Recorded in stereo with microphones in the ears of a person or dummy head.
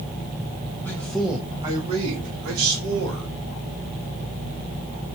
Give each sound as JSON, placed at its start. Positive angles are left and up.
{"t": 0.8, "sound": "a man speaking", "side_deg": 10, "distance_m": 1.1}